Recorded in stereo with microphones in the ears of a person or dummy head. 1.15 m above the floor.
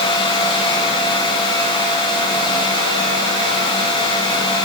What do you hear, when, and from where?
Only background noise.